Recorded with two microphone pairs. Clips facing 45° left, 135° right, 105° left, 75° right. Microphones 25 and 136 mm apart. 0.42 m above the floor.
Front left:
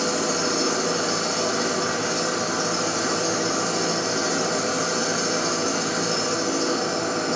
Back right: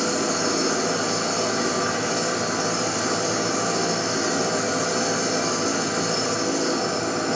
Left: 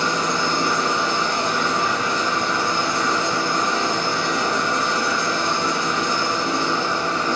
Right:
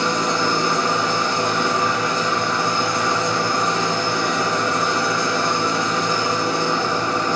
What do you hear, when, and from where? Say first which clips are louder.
0.0 s an engine running: even, right 2 dB; 20° right, 3.5 m